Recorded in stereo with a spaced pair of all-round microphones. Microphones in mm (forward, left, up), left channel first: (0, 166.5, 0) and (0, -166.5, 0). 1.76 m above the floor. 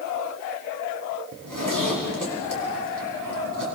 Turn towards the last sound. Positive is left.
turn(degrees=-65)  # may be behind; listen again after turning